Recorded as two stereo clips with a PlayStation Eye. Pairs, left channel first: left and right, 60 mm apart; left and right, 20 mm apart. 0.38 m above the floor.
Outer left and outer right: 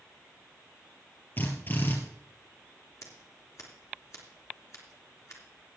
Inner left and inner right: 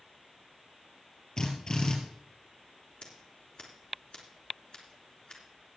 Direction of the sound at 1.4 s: 40° left (ahead or behind).